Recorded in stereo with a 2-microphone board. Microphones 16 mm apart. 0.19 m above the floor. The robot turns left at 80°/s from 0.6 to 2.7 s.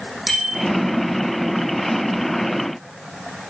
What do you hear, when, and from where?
0.3 s a bicycle bell: 5° right (ahead or behind), 6.5 m